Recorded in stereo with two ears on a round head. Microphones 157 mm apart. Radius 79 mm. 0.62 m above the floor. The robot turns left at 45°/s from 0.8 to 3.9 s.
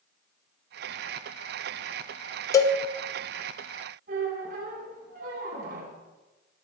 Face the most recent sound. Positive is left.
turn(degrees=-55)  # may be behind; listen again after turning